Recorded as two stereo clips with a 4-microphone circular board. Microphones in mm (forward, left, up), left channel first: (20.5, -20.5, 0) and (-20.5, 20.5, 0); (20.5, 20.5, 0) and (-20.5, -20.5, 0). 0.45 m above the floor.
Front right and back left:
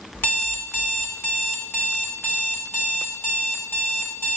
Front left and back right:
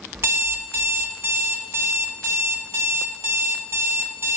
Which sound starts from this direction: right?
An alarm clock, at 0.1 s.